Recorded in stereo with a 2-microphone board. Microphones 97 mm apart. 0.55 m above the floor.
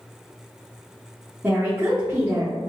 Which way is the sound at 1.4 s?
25° right (ahead or behind).